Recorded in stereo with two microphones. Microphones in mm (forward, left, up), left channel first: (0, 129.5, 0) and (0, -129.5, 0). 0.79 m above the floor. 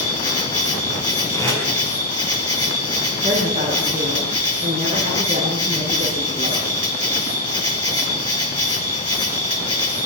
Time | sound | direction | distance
0.0 | an insect | 70° left (ahead or behind) | 3.5 m
1.3 | tape being pulled | 10° left (ahead or behind) | 7 m
3.2 | a woman speaking | 20° right (ahead or behind) | 9.5 m